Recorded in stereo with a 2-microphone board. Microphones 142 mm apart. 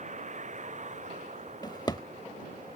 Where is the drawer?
30° left (ahead or behind).